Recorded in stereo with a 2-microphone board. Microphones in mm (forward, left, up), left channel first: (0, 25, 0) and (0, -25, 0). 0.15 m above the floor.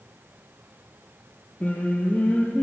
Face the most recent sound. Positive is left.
turn(degrees=30)  # may be behind; listen again after turning